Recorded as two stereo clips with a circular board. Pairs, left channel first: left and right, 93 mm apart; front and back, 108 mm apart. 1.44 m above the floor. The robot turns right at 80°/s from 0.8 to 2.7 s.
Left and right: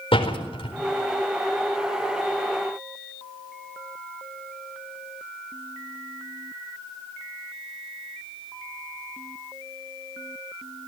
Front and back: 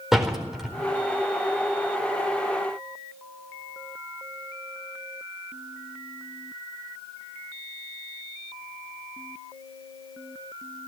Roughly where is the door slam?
Left.